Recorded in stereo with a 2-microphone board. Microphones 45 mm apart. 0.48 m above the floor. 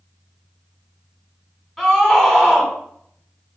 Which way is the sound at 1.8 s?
Centre (ahead or behind).